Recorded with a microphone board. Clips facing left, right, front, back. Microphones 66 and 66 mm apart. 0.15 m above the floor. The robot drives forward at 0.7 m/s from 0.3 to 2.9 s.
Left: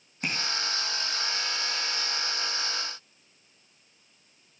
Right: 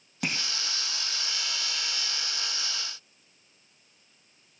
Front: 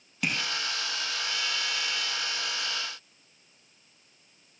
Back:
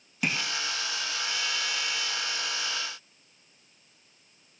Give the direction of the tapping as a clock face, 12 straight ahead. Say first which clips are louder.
Right 1 dB, back 1 dB; 3 o'clock.